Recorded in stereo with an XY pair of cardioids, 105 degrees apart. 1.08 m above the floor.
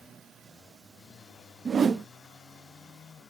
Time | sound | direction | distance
1.6 | a whoosh | 40° right | 0.8 m